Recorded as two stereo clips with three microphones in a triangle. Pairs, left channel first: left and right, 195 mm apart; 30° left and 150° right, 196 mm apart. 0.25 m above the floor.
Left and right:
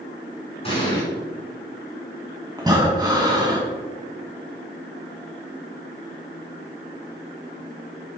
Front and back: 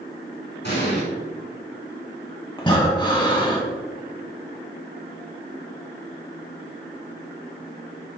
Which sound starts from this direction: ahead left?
An explosion, at 0.6 s.